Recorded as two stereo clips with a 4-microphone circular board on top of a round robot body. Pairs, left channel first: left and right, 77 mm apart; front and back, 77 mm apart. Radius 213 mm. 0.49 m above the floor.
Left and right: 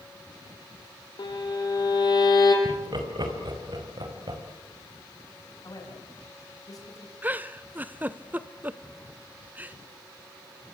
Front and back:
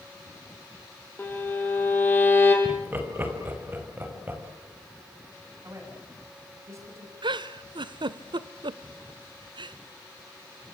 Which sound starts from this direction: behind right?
Laughter, at 2.6 s.